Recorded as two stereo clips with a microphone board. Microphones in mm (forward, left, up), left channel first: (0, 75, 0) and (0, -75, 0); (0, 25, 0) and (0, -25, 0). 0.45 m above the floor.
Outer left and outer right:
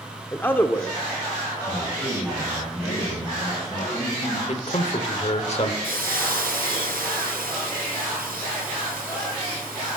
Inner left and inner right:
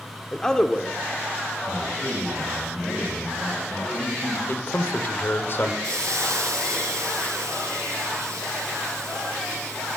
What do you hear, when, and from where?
0.3 s a man speaking: 15° left (ahead or behind), 0.8 m
1.7 s a man speaking: 20° left (ahead or behind), 6.5 m
4.5 s a man speaking: 45° left (ahead or behind), 1.4 m
5.8 s a hiss: 85° right, 4 m